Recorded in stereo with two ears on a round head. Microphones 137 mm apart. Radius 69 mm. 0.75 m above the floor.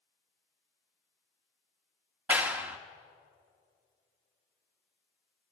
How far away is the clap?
About 0.9 m.